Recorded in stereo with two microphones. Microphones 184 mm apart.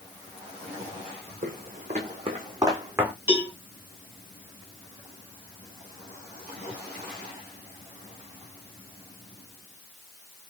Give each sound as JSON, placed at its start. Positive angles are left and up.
{"t": 1.4, "sound": "footsteps", "side_deg": -50, "distance_m": 1.4}
{"t": 3.3, "sound": "a cowbell", "side_deg": -10, "distance_m": 1.7}